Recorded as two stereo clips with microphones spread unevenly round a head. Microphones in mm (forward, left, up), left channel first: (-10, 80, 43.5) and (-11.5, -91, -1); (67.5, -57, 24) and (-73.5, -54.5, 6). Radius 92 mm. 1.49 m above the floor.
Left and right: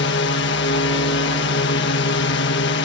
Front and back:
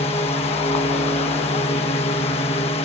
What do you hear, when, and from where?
0.0 s a drone: 60° left